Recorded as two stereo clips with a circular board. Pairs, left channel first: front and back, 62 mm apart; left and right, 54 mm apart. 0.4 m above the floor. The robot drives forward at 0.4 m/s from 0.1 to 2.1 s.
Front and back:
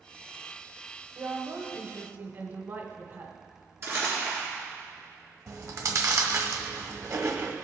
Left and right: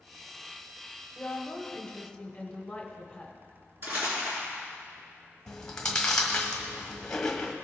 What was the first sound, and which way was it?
A woman speaking, 155° left.